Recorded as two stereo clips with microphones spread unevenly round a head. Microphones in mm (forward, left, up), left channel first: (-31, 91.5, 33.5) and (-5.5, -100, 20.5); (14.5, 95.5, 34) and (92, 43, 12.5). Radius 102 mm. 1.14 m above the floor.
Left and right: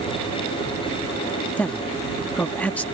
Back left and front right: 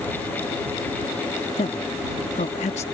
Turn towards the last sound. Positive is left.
turn(degrees=180)